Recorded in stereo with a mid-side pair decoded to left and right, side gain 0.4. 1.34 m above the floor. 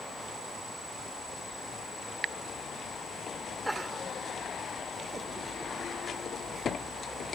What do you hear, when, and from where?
3.6 s laughter: 10° right; by 7.0 s 55° right